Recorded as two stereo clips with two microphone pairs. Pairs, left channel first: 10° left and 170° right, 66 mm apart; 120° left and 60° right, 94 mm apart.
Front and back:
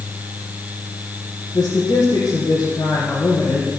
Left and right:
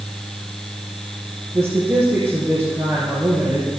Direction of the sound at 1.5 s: 15° left.